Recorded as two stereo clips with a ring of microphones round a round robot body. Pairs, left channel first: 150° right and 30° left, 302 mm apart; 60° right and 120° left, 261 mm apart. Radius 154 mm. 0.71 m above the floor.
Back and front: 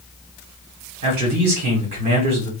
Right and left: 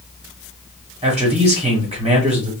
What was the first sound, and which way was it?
A man speaking, 55° left.